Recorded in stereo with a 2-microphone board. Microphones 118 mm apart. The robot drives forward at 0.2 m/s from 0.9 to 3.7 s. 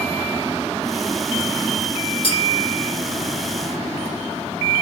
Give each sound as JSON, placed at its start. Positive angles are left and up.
{"t": 2.2, "sound": "a clink", "side_deg": 45, "distance_m": 1.6}